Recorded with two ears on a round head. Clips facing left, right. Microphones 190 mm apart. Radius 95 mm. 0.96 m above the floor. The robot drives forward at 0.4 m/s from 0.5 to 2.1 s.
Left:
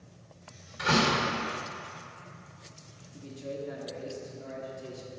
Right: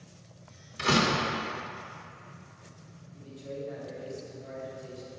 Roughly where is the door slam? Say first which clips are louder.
Even; right.